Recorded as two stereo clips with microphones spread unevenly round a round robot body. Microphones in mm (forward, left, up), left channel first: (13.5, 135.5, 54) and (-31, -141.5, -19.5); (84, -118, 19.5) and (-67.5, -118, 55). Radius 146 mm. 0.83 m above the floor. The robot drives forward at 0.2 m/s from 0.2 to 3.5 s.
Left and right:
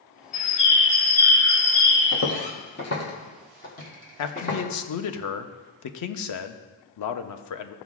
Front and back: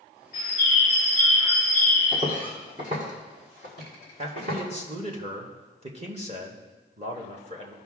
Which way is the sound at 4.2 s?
115° left.